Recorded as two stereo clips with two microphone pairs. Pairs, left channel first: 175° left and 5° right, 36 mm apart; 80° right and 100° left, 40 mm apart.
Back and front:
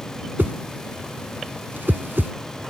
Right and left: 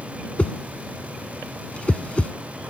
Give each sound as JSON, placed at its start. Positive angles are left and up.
{"t": 0.4, "sound": "a whoosh", "azimuth_deg": -25}